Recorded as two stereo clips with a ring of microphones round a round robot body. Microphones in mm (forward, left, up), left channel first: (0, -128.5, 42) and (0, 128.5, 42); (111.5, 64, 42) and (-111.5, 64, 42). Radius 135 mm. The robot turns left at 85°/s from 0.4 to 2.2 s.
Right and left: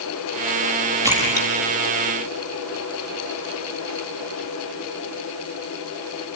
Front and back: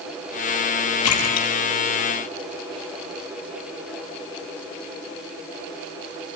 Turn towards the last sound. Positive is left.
turn(degrees=-85)